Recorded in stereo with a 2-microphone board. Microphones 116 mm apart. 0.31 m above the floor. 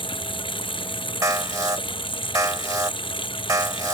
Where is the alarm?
30° right (ahead or behind).